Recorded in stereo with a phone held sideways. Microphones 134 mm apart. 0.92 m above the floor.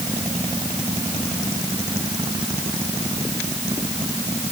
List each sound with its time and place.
Only background noise.